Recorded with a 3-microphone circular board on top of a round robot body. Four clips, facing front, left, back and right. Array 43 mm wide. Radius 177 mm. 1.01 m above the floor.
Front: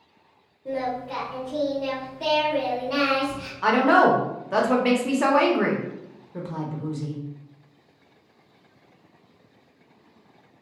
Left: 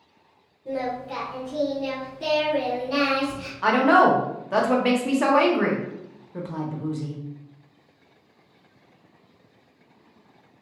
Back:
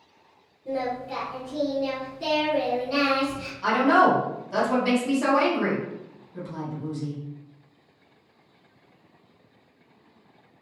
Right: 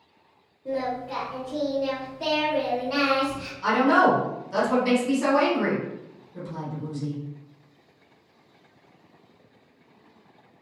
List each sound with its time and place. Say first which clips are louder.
0.7 s singing: even, front 1 dB; 45° right, 0.6 m
3.6 s a woman speaking: left 2 dB, front 2 dB; 50° left, 0.7 m